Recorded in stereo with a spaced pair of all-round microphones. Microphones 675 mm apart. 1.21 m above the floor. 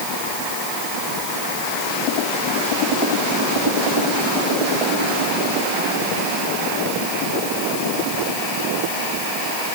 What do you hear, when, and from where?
Only background noise.